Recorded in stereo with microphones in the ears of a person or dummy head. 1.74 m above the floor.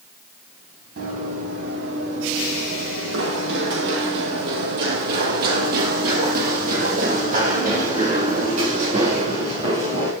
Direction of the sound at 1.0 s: 50° right (ahead or behind).